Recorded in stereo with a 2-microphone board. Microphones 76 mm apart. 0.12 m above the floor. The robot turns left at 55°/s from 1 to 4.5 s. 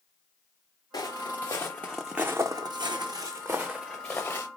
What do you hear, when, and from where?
0.9 s footsteps: 85° left, 1.0 m; by 4.5 s 45° left (ahead or behind), 1.1 m